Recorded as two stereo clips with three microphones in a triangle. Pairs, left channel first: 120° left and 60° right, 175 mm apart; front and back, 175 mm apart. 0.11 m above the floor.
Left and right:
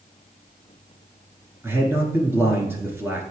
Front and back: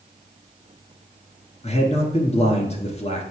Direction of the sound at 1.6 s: 10° left.